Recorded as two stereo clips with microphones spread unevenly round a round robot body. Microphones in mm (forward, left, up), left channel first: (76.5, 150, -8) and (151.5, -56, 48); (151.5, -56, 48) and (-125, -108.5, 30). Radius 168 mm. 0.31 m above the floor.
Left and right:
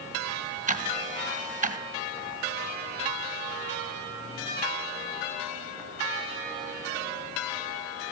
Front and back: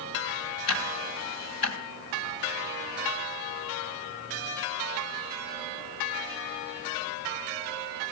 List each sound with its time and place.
0.7 s ticking: 10° right, 2 m